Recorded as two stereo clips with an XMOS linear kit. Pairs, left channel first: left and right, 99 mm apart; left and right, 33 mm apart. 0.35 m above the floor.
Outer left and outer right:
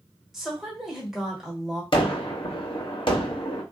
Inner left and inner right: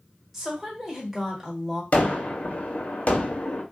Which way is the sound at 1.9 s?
60° left (ahead or behind).